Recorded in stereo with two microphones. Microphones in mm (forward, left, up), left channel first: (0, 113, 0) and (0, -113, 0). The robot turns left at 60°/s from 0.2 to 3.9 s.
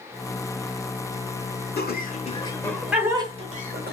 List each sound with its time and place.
1.8 s laughter: 45° left (ahead or behind), 1.3 m; by 3.9 s 45° right (ahead or behind), 1.3 m